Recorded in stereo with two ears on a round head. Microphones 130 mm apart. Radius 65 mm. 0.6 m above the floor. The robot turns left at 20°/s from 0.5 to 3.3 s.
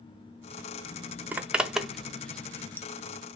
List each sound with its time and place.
1.3 s a zipper: 10° right (ahead or behind), 0.5 m; by 2.9 s 15° left (ahead or behind), 0.5 m